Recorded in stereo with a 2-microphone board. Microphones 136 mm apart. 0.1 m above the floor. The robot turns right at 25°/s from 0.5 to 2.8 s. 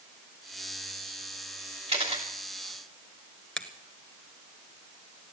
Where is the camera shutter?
45° right (ahead or behind), 2.5 m; by 2.2 s 55° right (ahead or behind), 2.5 m.